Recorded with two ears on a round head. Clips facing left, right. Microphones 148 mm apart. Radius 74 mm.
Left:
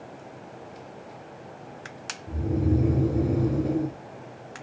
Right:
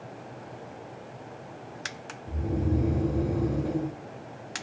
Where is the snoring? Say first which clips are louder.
Left 3 dB; 5° left (ahead or behind), 0.6 m.